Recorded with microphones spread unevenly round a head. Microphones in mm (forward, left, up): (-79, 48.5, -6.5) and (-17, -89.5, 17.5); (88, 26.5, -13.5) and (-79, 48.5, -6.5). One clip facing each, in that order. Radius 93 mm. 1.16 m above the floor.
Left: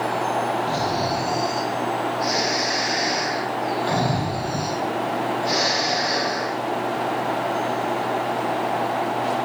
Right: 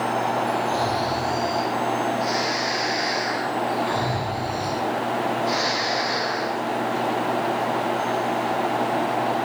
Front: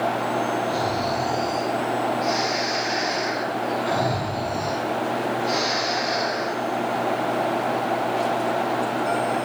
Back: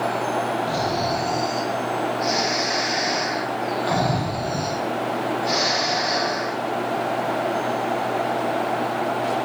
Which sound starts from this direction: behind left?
Snoring, at 0.7 s.